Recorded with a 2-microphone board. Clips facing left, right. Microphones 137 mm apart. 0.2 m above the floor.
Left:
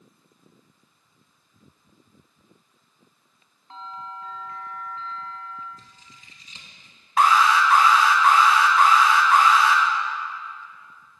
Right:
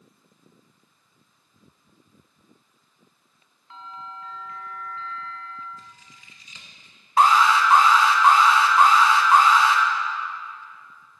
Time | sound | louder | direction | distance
3.7 | a bell | left 2 dB | 40° left (ahead or behind) | 0.8 m
5.8 | scissors | right 2 dB | 35° left (ahead or behind) | 1.0 m
7.2 | an alarm | right 1 dB | 30° right (ahead or behind) | 0.8 m